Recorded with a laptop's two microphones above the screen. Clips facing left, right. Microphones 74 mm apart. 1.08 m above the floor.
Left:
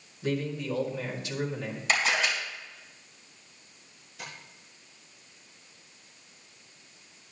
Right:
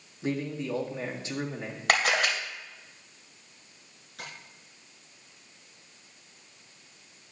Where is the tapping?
70° right (ahead or behind), 5.5 m.